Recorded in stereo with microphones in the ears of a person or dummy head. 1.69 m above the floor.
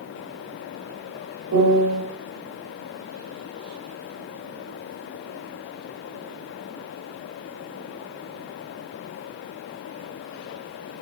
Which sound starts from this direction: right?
A piano, at 1.5 s.